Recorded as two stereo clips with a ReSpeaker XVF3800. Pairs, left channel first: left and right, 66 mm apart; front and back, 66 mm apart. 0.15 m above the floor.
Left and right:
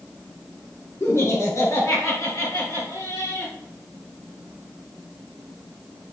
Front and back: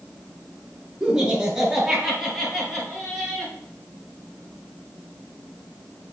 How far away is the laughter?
About 2 m.